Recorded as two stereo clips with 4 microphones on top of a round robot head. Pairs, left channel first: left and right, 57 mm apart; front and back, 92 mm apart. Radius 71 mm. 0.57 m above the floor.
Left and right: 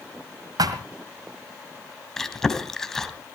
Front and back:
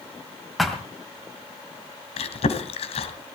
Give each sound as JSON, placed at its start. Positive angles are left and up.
{"t": 0.6, "sound": "a thud", "azimuth_deg": -90, "distance_m": 1.6}
{"t": 2.2, "sound": "chewing", "azimuth_deg": 10, "distance_m": 2.5}